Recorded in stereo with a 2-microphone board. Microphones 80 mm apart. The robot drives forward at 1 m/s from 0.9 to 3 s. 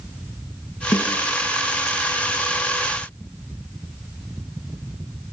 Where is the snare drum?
70° left (ahead or behind), 8.5 m.